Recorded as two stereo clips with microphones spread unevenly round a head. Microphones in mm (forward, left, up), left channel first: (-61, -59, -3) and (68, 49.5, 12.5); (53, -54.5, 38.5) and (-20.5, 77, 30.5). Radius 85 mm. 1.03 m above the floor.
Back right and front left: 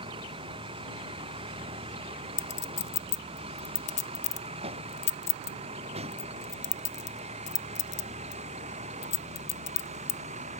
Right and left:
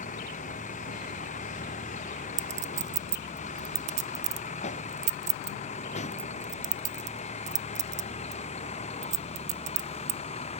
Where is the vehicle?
20° right; by 10.6 s 10° right.